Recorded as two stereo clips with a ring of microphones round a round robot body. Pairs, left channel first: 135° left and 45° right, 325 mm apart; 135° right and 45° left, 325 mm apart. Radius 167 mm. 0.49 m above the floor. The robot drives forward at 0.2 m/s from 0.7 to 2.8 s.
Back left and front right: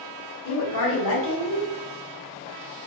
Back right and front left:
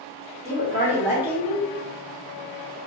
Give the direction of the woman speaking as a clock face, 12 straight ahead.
8 o'clock.